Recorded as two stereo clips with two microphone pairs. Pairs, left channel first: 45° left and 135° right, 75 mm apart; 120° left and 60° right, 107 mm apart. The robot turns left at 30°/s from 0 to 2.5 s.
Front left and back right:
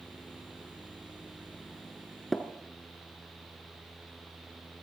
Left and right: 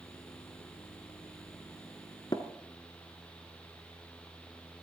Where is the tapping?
135° left, 1.1 m; by 2.4 s 130° left, 1.1 m.